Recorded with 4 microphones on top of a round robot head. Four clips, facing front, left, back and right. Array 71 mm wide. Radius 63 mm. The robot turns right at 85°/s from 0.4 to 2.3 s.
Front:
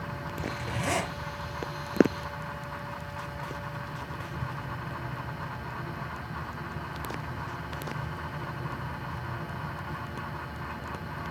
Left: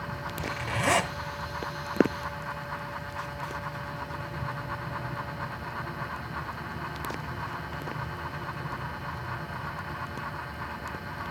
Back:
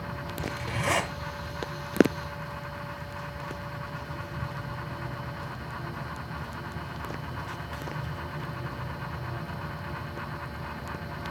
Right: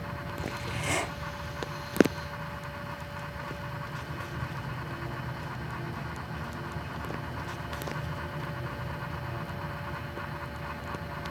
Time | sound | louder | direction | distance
0.4 | a zipper | left 6 dB, back 1 dB | 50° left | 8 m